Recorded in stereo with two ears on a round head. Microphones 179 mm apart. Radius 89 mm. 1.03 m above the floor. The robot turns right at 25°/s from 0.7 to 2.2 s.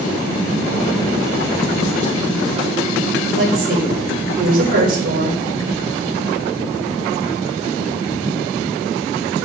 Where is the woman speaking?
50° right (ahead or behind), 3.5 m.